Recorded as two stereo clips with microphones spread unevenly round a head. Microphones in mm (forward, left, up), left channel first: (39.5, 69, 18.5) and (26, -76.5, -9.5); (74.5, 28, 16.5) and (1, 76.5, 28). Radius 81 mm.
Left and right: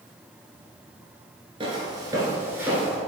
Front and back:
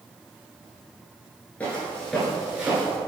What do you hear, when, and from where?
1.6 s footsteps: 100° right, 1.8 m; by 3.0 s 160° left, 1.8 m